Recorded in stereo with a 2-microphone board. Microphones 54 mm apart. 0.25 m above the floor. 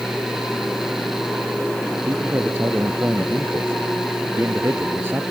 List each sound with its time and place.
2.1 s a man speaking: 50° right (ahead or behind)